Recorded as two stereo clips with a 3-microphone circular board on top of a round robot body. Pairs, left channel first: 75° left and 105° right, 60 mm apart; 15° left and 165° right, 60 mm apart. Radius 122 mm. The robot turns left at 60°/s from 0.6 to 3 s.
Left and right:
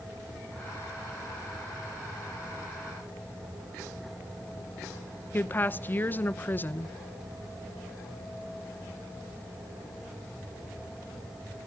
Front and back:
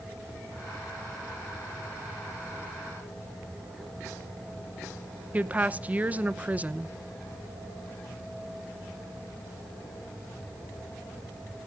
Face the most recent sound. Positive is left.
turn(degrees=130)